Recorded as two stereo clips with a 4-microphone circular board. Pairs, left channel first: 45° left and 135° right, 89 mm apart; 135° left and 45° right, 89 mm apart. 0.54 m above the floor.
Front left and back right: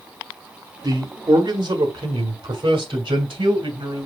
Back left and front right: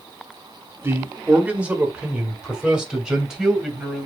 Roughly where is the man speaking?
Right.